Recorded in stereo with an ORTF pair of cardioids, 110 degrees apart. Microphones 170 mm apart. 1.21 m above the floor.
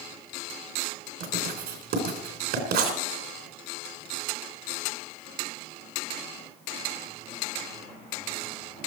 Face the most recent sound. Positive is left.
turn(degrees=-70)